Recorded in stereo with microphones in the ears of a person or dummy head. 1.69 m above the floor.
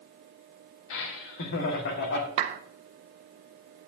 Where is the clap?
30° right (ahead or behind), 0.6 m.